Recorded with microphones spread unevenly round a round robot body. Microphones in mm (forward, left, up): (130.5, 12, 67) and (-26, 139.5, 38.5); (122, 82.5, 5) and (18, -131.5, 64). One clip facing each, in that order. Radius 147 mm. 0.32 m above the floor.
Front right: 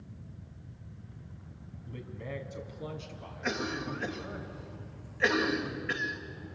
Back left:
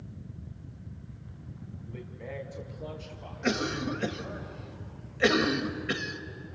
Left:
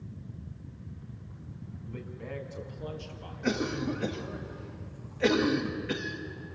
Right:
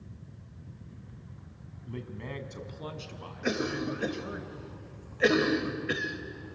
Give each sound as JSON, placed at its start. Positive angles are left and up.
{"t": 1.9, "sound": "a man speaking", "azimuth_deg": -95, "distance_m": 2.5}
{"t": 3.4, "sound": "a cough", "azimuth_deg": 160, "distance_m": 2.0}